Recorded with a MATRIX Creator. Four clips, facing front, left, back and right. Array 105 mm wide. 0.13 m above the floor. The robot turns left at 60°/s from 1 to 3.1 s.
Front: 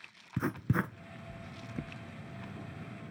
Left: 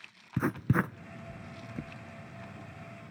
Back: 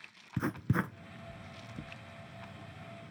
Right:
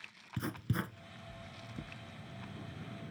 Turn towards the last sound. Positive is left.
turn(degrees=-40)